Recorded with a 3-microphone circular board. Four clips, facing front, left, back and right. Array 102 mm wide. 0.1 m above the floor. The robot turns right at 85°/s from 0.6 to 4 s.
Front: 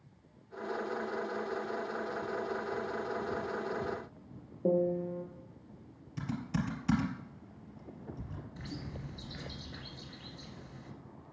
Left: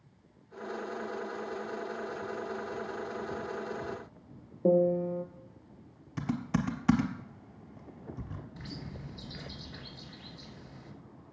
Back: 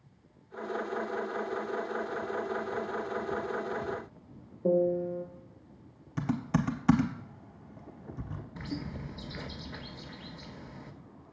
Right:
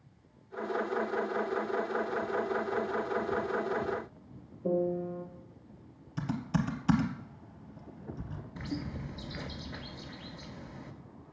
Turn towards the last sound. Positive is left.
turn(degrees=-145)